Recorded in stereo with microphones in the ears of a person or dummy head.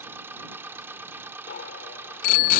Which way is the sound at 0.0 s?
10° right (ahead or behind).